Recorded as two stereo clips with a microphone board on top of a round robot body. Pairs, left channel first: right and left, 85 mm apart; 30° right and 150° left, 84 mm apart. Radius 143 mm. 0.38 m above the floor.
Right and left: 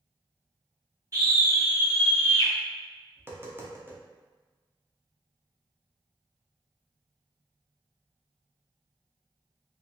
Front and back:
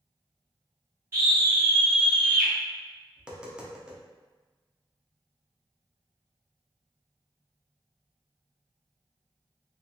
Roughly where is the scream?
Left.